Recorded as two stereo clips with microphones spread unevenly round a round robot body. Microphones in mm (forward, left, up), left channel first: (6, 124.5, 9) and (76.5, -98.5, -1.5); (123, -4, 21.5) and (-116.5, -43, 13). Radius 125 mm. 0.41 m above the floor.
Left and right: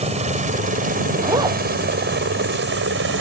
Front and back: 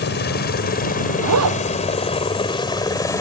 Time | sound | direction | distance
0.0 | a helicopter | 20° right | ?
1.2 | a zipper | 150° right | ?